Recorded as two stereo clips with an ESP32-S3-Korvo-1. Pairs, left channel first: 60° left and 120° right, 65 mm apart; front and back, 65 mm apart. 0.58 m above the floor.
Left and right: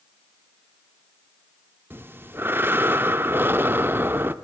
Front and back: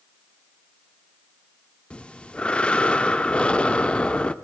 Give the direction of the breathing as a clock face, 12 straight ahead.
2 o'clock.